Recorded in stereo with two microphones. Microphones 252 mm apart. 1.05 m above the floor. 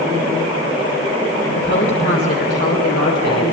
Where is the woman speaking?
50° left (ahead or behind), 3.5 m; by 3.5 s 85° left, 3 m.